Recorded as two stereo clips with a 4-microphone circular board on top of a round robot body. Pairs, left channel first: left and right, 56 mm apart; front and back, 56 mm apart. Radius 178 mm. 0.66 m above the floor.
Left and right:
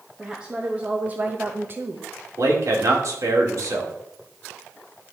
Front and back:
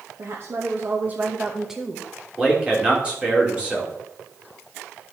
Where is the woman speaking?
160° right, 1.5 m; by 2.1 s 85° right, 1.2 m.